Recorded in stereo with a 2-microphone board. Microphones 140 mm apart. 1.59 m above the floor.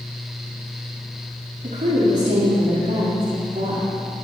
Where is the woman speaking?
75° right (ahead or behind), 3.5 m.